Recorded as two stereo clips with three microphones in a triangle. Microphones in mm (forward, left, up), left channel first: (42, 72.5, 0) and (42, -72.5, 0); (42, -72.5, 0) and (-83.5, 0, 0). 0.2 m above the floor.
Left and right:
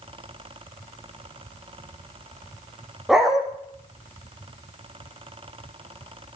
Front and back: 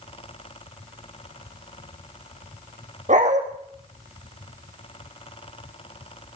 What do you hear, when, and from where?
3.1 s a dog barking: 175° right, 4 m